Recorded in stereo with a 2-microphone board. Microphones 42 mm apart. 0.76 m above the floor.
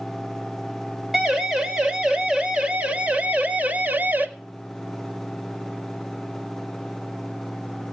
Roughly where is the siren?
Centre.